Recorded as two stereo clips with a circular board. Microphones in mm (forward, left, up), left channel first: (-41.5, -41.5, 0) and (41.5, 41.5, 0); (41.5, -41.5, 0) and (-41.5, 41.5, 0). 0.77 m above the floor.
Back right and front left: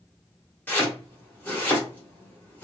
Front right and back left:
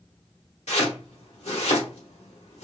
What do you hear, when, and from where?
0.7 s chopping: 60° right, 1.3 m